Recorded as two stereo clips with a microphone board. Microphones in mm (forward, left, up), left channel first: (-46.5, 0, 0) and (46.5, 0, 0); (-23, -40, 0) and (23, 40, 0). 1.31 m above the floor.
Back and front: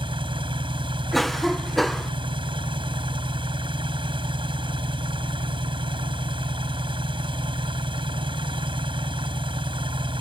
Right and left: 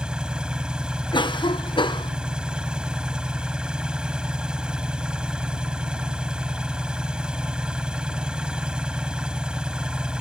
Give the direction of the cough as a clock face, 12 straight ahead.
3 o'clock.